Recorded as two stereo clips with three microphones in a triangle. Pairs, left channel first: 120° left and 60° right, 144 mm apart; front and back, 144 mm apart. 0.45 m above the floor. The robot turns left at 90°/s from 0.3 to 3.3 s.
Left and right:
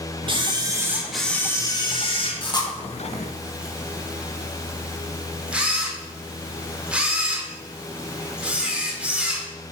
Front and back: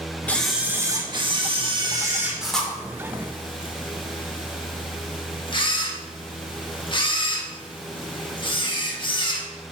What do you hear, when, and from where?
0.3 s a camera shutter: 70° right, 1.0 m; by 9.5 s 20° left, 1.0 m